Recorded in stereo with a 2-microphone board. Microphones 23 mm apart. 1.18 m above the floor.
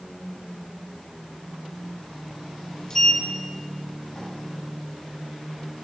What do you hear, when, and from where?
2.9 s a sliding door: 20° left (ahead or behind), 3.5 m